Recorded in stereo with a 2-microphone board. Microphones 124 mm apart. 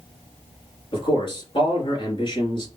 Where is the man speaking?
40° left (ahead or behind), 2.5 m.